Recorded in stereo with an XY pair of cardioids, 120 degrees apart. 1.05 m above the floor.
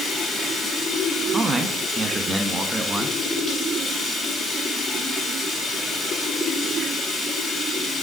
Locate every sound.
0.0 s running water: 50° left, 3.5 m
1.3 s a man speaking: 15° right, 1.2 m